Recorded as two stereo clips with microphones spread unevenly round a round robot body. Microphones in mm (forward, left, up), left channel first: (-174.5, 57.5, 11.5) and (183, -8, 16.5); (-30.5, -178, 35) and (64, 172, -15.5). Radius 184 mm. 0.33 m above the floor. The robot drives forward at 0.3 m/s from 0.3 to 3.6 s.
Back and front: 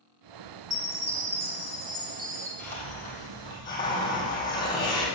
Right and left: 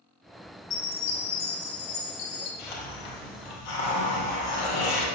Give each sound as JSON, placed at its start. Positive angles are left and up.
{"t": 0.7, "sound": "a chime", "azimuth_deg": -80, "distance_m": 3.0}
{"t": 2.6, "sound": "a hiss", "azimuth_deg": -105, "distance_m": 2.5}